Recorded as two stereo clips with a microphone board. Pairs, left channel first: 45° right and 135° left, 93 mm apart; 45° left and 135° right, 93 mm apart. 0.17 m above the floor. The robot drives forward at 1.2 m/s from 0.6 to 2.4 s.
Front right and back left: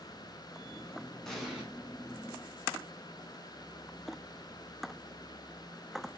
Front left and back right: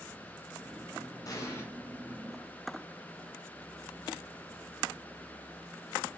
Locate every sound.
1.2 s an explosion: 40° left, 1.3 m; by 1.6 s 70° left, 1.1 m